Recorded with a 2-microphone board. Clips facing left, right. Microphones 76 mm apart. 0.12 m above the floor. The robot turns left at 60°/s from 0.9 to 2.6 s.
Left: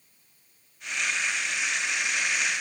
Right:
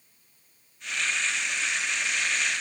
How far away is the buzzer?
I don't hear a buzzer.